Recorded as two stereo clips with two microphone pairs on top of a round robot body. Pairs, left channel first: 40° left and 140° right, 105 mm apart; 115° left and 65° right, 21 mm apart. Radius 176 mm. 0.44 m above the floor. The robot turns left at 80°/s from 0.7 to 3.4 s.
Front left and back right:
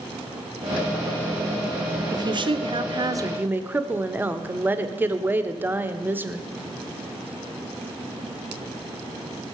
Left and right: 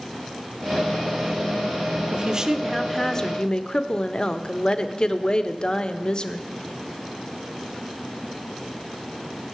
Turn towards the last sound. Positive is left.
turn(degrees=155)